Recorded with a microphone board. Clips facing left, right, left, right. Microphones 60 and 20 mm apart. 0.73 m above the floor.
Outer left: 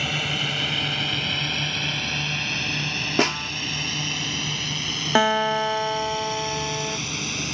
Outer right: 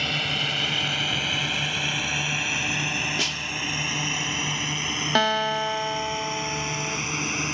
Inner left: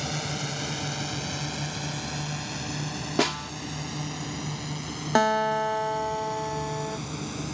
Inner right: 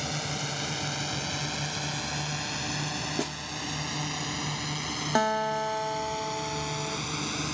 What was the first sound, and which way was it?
A drone, 5° left (ahead or behind).